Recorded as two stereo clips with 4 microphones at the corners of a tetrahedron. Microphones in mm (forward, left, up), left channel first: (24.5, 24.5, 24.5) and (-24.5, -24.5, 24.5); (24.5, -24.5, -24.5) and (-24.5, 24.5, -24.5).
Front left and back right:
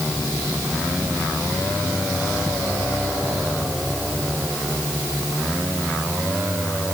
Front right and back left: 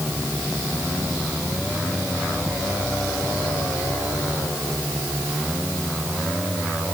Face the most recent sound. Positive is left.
No sound to turn to.